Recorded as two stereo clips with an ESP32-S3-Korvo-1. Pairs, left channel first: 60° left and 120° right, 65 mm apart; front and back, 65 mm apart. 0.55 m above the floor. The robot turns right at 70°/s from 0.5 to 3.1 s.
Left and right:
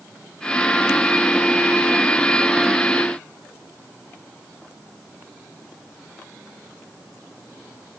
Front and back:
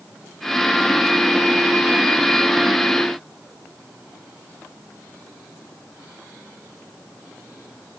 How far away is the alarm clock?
I don't hear an alarm clock.